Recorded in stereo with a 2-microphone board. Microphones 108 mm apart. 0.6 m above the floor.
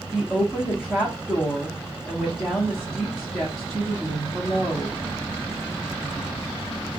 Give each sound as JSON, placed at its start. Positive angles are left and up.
{"t": 0.1, "sound": "a woman speaking", "side_deg": 0, "distance_m": 1.1}